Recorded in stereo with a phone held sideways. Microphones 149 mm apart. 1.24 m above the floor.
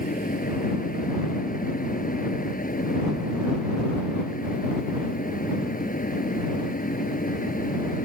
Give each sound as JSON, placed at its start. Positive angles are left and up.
{"t": 0.0, "sound": "a fan", "side_deg": 70}